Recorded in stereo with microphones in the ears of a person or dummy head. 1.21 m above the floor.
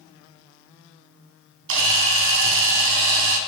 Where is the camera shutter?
75° right (ahead or behind), 2 m.